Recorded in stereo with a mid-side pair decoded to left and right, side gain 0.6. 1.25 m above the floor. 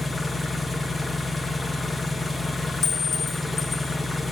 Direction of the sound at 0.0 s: 10° left.